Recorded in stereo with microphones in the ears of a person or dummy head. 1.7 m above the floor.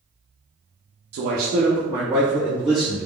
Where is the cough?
No cough in this recording.